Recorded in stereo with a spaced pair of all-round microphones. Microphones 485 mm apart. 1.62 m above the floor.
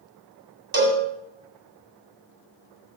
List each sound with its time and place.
0.7 s a cowbell: 45° right (ahead or behind), 2 m